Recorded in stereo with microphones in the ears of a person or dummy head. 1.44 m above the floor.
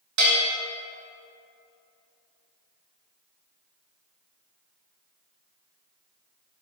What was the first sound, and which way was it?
A bell, 65° right (ahead or behind).